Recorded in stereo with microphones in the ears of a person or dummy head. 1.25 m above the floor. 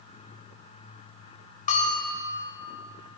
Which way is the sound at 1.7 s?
45° left (ahead or behind).